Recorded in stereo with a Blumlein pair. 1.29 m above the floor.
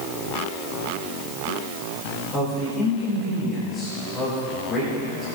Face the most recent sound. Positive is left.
turn(degrees=30)